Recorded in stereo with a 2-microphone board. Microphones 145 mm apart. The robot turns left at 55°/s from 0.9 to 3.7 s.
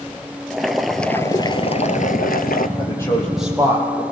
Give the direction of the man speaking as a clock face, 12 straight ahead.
11 o'clock.